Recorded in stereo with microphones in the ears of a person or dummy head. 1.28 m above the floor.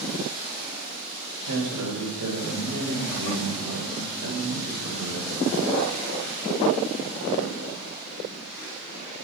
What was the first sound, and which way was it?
A man speaking, 85° right.